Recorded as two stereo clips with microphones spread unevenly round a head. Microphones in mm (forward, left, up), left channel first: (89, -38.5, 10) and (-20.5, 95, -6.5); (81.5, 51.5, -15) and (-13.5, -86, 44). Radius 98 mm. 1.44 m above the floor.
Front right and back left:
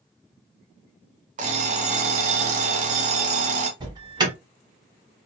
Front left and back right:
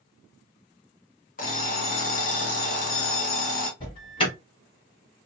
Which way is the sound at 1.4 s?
105° left.